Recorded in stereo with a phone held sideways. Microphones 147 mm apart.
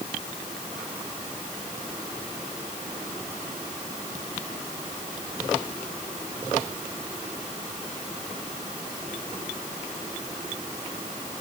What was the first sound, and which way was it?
Only background noise.